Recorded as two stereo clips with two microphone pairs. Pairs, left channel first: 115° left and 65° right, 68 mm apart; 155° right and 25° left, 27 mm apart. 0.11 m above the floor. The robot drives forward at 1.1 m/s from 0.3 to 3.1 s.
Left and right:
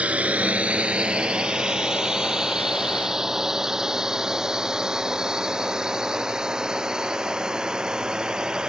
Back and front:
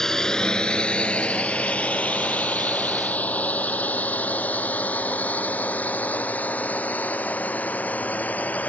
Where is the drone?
110° right; by 8.7 s 145° right.